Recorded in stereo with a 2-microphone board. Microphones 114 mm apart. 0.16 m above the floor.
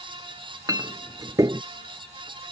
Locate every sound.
0.7 s a clink: 30° right (ahead or behind)